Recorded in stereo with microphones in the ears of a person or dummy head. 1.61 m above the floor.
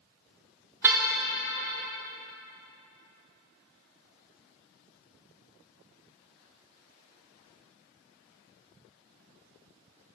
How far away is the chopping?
I don't hear chopping.